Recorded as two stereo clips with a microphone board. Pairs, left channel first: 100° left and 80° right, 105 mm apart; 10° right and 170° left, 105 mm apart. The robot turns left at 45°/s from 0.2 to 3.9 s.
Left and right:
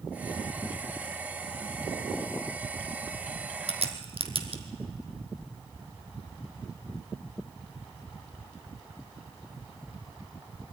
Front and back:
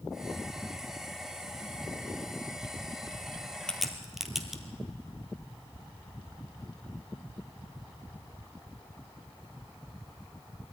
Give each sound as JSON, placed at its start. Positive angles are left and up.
{"t": 3.7, "sound": "a crack", "azimuth_deg": -95, "distance_m": 1.5}